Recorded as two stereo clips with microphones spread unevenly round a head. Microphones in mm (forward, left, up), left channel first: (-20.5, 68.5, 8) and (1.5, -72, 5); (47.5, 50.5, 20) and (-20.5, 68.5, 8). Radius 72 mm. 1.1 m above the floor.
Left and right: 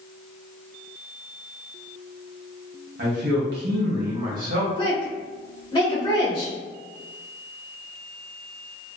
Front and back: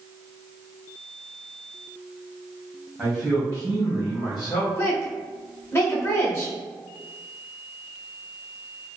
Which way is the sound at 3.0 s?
105° right.